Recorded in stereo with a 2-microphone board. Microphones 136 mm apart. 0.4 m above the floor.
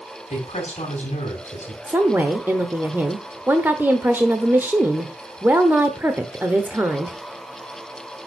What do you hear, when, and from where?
0.3 s a woman speaking: 45° left (ahead or behind), 2.5 m
1.9 s a woman speaking: 15° right (ahead or behind), 0.9 m